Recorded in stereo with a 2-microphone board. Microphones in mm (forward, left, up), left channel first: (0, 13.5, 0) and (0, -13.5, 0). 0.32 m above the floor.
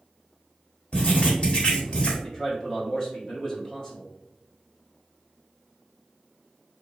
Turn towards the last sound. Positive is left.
turn(degrees=20)  # may be behind; listen again after turning